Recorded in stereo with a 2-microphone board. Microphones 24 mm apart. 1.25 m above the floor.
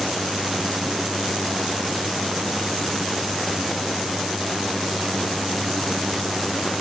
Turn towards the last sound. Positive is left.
No sound to turn to.